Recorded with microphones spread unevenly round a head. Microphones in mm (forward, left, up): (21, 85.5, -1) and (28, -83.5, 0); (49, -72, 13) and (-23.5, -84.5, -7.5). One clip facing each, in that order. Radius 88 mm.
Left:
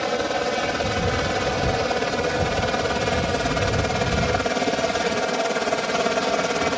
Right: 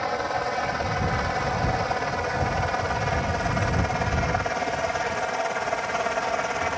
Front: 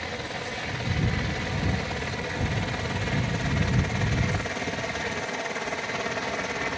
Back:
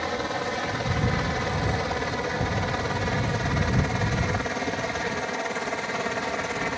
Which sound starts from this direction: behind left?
A helicopter, at 0.0 s.